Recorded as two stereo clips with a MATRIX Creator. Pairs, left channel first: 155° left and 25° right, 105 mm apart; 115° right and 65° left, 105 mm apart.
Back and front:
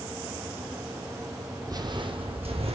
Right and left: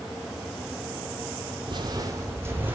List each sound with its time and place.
1.7 s footsteps: 30° left, 0.6 m; by 2.7 s 5° right, 1.0 m